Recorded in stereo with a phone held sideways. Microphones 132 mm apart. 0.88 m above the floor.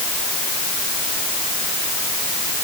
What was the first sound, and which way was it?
Only background noise.